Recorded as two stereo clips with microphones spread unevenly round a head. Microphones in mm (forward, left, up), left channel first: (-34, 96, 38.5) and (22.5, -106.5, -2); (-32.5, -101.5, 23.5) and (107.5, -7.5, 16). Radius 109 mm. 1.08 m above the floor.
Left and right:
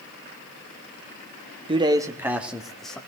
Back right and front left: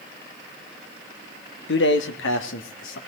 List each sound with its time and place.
1.7 s a man speaking: 140° right, 1.7 m; by 3.0 s 165° right, 2.5 m